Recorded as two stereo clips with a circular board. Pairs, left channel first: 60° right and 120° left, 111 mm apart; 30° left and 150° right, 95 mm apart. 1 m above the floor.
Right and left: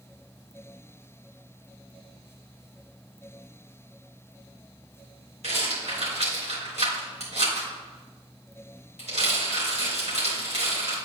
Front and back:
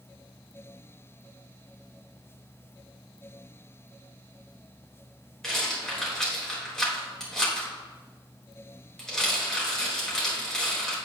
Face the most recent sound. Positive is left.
turn(degrees=115)